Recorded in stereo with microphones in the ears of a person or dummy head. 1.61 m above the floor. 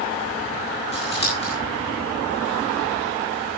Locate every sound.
0.9 s scissors: 30° left (ahead or behind), 6 m